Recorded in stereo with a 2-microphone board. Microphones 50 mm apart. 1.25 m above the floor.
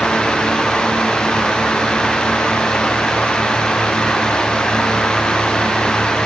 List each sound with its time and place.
Only background noise.